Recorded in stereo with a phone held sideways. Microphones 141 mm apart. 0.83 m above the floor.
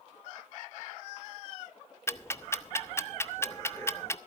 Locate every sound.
2.1 s ticking: 20° left (ahead or behind), 0.6 m